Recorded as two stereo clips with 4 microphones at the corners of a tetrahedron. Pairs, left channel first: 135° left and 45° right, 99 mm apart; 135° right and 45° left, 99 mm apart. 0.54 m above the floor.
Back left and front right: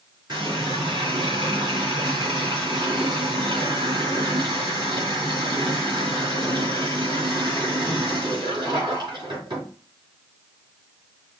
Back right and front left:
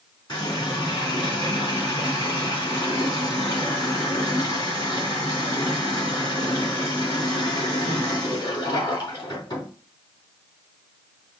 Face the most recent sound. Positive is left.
turn(degrees=-85)